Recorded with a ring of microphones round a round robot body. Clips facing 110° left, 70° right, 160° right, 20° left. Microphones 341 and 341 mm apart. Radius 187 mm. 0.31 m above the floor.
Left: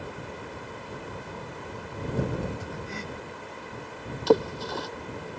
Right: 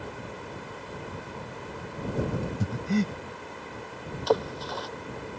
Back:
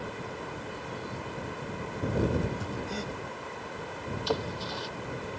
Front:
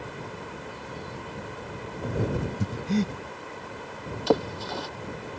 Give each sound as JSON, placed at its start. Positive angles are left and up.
{"t": 2.6, "sound": "breathing", "azimuth_deg": -30}
{"t": 4.3, "sound": "a splash", "azimuth_deg": 55}